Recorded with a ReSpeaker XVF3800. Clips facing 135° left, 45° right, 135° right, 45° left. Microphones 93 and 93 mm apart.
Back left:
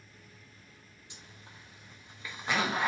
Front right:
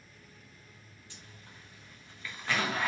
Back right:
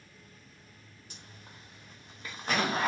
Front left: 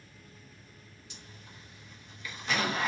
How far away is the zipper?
About 1.0 m.